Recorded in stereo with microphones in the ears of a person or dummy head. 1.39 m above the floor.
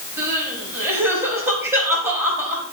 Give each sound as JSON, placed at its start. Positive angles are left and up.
{"t": 0.2, "sound": "crying", "side_deg": -15, "distance_m": 5.0}